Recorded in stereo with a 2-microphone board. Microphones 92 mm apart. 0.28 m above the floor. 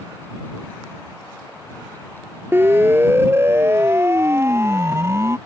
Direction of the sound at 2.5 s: 25° right (ahead or behind).